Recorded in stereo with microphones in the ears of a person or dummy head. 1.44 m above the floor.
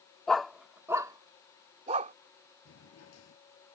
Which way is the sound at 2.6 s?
65° left (ahead or behind).